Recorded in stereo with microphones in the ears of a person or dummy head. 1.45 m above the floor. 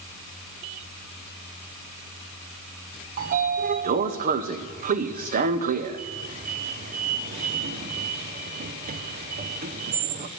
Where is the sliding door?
45° right (ahead or behind), 0.8 m.